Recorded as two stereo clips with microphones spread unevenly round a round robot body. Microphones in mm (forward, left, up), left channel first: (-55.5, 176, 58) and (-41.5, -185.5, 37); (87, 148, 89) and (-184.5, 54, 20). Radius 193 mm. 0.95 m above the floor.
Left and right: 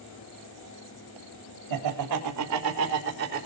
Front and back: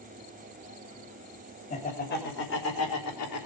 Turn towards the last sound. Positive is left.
turn(degrees=-20)